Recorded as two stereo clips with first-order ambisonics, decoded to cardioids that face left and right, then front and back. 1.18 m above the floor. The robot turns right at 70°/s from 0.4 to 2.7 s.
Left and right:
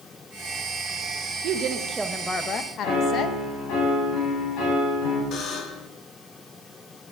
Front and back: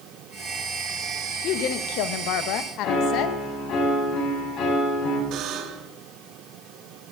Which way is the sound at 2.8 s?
50° left.